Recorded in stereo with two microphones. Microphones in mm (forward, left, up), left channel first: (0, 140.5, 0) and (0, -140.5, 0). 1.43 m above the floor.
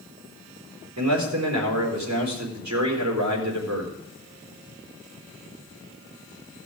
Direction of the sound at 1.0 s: 80° right.